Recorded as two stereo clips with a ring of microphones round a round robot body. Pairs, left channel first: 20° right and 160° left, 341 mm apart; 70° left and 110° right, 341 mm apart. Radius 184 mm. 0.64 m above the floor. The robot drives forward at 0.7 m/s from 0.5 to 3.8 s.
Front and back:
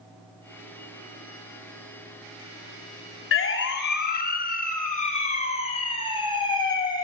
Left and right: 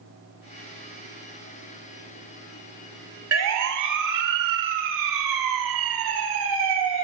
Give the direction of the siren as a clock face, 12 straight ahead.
2 o'clock.